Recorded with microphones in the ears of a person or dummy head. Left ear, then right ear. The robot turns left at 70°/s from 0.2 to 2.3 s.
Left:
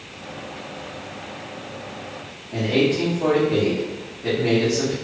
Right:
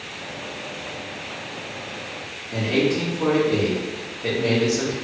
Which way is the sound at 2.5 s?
85° right.